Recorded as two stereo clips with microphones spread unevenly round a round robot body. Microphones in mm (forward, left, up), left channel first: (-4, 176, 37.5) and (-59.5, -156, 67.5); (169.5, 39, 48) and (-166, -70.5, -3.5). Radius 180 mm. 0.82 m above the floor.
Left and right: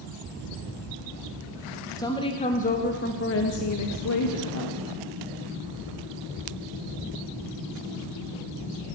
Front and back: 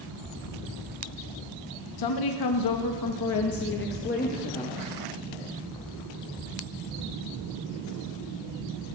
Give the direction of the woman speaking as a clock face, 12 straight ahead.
12 o'clock.